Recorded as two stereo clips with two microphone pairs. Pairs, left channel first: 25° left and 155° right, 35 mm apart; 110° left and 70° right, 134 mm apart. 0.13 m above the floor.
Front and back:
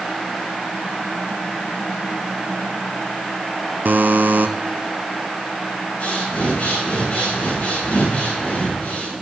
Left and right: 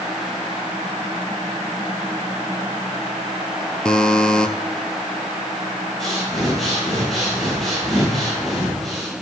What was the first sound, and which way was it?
A buzzer, 170° right.